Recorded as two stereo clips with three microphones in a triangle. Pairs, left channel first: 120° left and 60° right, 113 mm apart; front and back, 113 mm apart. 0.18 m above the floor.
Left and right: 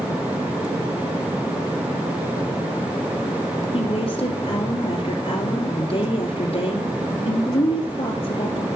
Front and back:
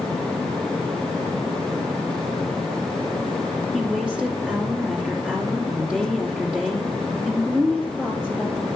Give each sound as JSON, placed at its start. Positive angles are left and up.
{"t": 3.7, "sound": "a woman speaking", "azimuth_deg": 100, "distance_m": 2.5}